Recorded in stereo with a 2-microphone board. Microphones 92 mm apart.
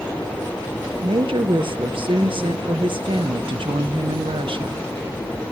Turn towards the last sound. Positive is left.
turn(degrees=-65)  # may be behind; listen again after turning